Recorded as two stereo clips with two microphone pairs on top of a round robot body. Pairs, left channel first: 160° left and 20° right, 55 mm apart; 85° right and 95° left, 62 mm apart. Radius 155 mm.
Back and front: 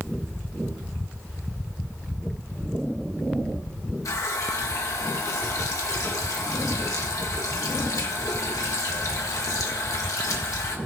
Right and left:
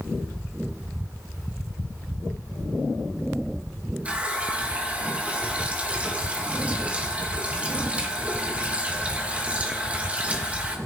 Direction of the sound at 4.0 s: 165° left.